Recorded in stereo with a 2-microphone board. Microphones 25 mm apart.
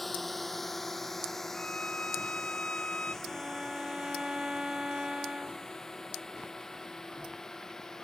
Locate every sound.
0.0 s a drone: centre (ahead or behind); by 8.1 s 15° left (ahead or behind)
1.5 s a violin: 50° left (ahead or behind)
3.2 s a violin: 35° right (ahead or behind)